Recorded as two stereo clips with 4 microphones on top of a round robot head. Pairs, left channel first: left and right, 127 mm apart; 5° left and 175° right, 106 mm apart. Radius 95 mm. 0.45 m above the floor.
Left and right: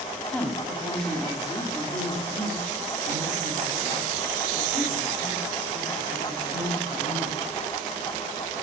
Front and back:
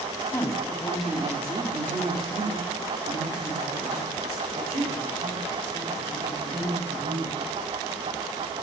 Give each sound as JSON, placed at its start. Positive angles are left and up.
{"t": 0.3, "sound": "a woman speaking", "azimuth_deg": 15, "distance_m": 1.3}